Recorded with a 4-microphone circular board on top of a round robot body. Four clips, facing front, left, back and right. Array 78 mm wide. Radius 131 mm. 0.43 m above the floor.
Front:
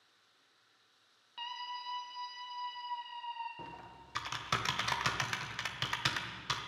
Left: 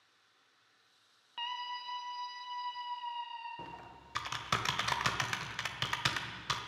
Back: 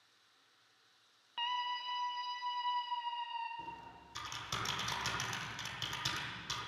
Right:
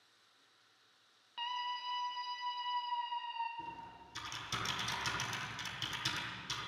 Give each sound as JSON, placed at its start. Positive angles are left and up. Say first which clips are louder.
{"t": 1.4, "sound": "a scream", "louder": "even, back 5 dB", "azimuth_deg": 155, "distance_m": 0.9}
{"t": 3.6, "sound": "typing on a keyboard", "louder": "right 1 dB, even", "azimuth_deg": 50, "distance_m": 0.9}